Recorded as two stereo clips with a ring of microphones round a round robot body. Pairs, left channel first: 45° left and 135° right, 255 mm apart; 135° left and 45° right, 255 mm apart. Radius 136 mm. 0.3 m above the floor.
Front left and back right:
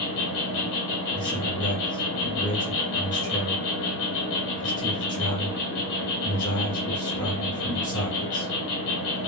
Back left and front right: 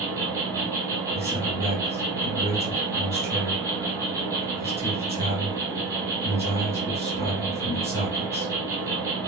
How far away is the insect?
About 1.6 m.